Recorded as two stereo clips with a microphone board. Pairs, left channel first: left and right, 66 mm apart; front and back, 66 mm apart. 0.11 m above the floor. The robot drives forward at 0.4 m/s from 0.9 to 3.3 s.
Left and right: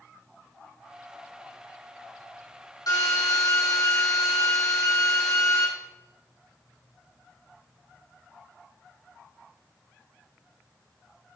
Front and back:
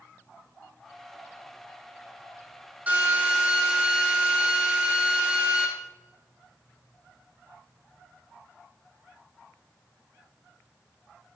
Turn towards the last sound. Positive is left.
turn(degrees=115)